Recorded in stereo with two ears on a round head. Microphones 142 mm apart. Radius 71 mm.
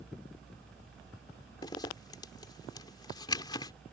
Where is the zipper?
25° left (ahead or behind).